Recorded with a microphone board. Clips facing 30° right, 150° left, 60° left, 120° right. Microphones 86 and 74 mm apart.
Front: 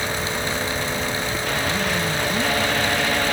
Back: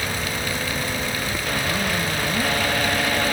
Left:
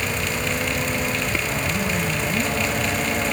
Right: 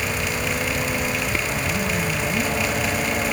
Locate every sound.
Only background noise.